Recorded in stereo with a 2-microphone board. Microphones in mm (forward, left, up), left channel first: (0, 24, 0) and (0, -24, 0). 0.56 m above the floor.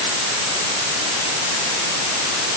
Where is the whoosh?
I don't hear a whoosh.